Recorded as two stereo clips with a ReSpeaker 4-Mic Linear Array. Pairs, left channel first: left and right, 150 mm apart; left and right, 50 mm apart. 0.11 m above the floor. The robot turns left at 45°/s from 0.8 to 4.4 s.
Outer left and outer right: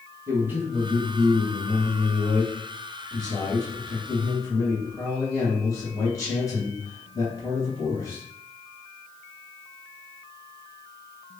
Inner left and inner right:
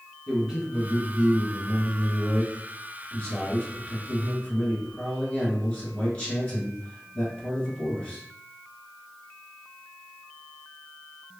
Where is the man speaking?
150° right, 1.4 m; by 8.2 s 50° left, 1.4 m.